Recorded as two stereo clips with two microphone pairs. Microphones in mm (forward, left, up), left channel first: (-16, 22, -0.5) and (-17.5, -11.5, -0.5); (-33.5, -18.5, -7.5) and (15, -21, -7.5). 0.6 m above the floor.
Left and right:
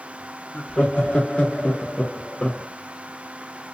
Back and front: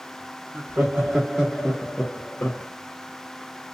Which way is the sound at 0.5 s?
30° left.